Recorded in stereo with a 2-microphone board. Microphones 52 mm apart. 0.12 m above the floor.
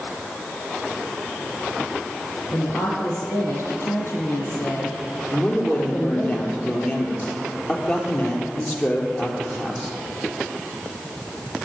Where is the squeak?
No squeak in this recording.